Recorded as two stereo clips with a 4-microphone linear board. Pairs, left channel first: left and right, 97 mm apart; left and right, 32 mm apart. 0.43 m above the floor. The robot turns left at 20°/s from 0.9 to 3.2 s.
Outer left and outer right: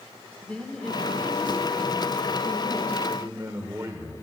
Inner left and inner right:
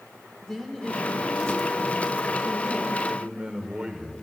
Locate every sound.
0.4 s a woman speaking: 10° left (ahead or behind), 1.2 m; by 3.0 s 25° left (ahead or behind), 1.2 m
3.1 s a man speaking: 30° right (ahead or behind), 1.2 m